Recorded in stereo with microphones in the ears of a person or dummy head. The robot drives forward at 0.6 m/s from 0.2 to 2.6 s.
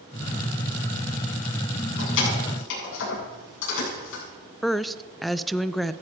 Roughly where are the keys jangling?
Left.